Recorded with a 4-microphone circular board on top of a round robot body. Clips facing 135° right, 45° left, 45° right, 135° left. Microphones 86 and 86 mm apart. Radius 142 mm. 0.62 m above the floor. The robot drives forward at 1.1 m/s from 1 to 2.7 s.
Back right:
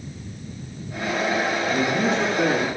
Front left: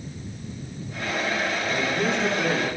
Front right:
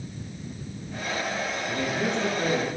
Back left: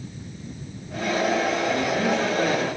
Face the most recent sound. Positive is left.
turn(degrees=-160)